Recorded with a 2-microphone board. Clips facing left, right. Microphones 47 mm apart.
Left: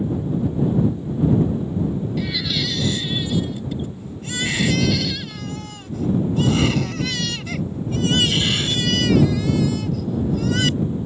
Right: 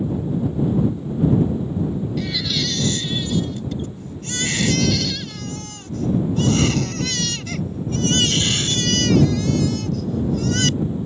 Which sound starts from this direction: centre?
A baby crying, at 2.2 s.